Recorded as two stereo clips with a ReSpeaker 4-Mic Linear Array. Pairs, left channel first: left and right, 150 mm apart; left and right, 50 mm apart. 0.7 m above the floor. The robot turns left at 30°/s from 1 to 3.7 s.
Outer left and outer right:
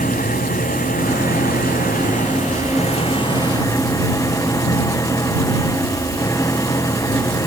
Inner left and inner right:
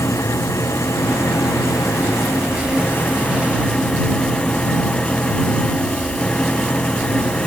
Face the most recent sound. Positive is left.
turn(degrees=25)